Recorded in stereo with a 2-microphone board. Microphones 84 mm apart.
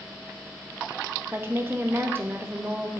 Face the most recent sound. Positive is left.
turn(degrees=-30)  # may be behind; listen again after turning